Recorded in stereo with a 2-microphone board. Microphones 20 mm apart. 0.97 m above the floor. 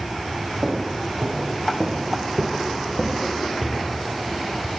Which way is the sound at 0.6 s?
60° right (ahead or behind).